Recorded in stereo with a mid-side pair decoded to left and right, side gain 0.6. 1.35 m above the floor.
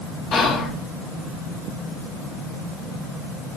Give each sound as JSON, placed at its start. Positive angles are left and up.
{"t": 0.3, "sound": "whispering", "azimuth_deg": 45, "distance_m": 0.6}